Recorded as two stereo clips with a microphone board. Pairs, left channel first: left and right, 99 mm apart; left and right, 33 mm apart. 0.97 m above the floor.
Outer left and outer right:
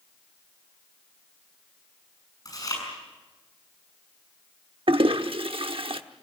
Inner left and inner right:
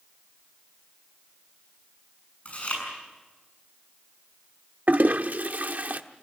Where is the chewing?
35° left (ahead or behind), 7 m.